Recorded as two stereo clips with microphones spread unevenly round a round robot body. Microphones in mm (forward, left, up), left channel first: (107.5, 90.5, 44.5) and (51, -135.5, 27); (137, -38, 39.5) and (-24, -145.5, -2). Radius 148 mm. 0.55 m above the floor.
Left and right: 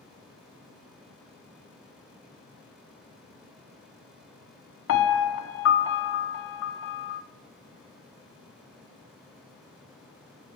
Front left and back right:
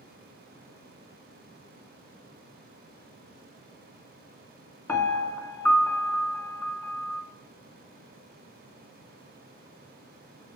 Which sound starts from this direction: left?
A piano, at 4.9 s.